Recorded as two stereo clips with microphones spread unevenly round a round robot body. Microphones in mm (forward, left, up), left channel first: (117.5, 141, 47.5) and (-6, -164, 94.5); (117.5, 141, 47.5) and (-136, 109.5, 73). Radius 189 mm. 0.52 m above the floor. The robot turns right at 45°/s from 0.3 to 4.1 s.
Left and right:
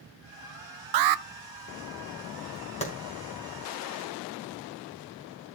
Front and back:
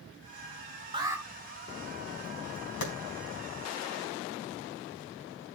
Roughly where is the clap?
Ahead.